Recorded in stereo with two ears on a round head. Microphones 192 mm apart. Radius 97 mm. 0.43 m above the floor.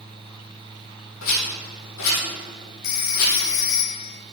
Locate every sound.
1.2 s a rattle: 70° left (ahead or behind), 4 m
2.8 s a phone ringing: 70° left (ahead or behind), 1.4 m